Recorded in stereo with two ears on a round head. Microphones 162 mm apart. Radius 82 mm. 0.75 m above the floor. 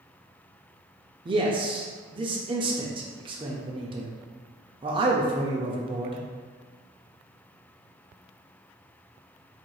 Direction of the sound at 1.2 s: 30° right (ahead or behind).